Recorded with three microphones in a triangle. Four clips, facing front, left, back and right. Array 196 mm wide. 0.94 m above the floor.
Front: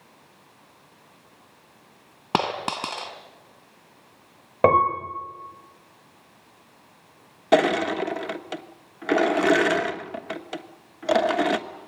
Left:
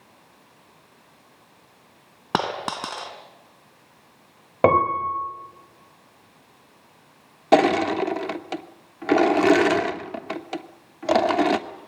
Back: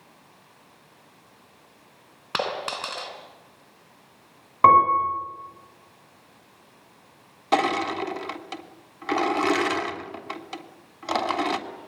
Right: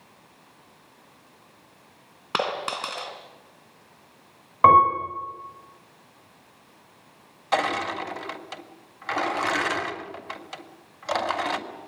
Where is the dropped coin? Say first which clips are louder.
Left 2 dB, front 3 dB; 40° left, 2.5 m.